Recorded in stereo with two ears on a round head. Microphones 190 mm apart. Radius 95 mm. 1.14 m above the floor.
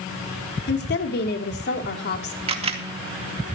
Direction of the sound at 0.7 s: 50° left (ahead or behind).